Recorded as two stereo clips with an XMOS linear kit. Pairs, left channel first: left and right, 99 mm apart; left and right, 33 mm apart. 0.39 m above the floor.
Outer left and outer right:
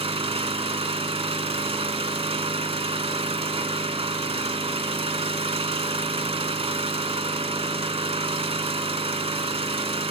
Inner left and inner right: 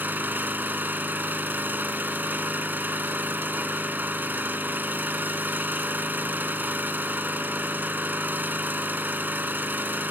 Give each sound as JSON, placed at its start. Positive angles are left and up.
{"t": 0.0, "sound": "an engine running", "side_deg": -70, "distance_m": 0.9}